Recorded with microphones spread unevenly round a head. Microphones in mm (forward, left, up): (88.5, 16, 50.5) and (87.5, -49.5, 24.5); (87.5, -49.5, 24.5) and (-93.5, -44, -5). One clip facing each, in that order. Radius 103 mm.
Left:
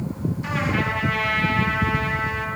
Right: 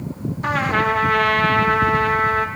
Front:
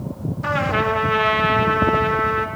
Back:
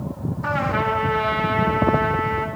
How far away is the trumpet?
About 1.2 m.